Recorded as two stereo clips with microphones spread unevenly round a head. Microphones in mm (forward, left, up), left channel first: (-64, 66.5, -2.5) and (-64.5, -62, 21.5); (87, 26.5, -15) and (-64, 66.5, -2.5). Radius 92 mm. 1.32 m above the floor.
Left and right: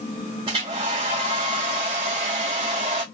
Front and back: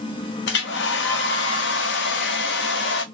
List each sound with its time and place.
0.5 s a hair dryer: 30° right, 0.5 m